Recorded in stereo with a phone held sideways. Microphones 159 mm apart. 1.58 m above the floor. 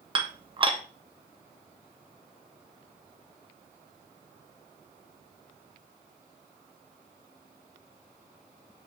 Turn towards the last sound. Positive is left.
turn(degrees=-30)  # may be behind; listen again after turning